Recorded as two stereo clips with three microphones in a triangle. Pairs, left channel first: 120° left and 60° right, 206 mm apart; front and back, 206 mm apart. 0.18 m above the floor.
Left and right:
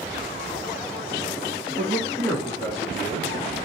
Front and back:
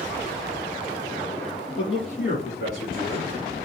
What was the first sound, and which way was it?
A man speaking, 10° left.